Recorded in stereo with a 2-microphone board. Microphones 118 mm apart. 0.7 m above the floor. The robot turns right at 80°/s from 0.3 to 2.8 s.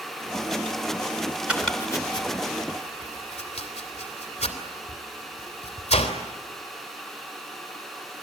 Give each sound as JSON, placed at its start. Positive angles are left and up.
{"t": 1.5, "sound": "chopping", "side_deg": -10, "distance_m": 3.0}